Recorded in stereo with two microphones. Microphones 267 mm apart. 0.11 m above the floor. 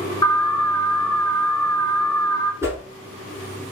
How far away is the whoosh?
About 0.9 m.